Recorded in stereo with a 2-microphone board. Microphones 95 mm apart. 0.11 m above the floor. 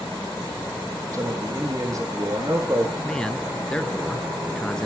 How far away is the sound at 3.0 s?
About 1.2 m.